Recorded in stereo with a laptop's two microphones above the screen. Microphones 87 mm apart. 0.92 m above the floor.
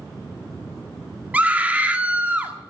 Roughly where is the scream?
Centre.